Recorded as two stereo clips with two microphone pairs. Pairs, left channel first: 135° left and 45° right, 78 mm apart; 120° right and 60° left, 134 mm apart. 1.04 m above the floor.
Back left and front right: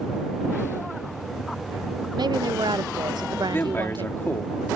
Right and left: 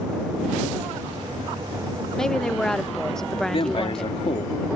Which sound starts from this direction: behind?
A man speaking, at 3.5 s.